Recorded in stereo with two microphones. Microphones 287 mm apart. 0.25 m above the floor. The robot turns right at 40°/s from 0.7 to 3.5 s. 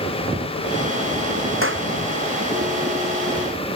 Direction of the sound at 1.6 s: 45° right (ahead or behind).